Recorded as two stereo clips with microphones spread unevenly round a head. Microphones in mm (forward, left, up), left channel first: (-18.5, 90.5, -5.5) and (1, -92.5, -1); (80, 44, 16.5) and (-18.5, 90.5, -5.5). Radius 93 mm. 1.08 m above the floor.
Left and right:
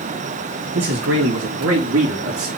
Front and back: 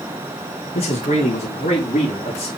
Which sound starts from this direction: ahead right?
A man speaking, at 0.8 s.